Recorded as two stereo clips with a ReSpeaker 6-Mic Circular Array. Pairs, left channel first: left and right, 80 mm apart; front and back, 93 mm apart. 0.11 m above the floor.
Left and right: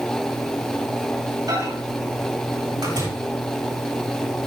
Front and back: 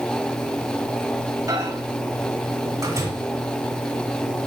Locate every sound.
1.5 s a microwave: 130° right, 7 m